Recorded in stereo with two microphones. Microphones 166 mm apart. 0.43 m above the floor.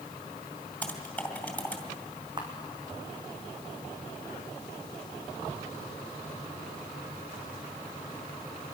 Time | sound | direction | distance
0.8 | typing on a keyboard | 10° left (ahead or behind) | 3 m
2.4 | a camera shutter | 30° right (ahead or behind) | 4 m